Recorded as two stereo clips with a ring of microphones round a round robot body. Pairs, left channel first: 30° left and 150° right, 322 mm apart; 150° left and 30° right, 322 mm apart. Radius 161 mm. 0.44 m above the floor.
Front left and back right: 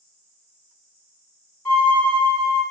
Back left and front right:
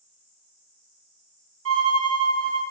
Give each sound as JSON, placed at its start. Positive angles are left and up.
{"t": 1.6, "sound": "a violin", "azimuth_deg": -60, "distance_m": 1.4}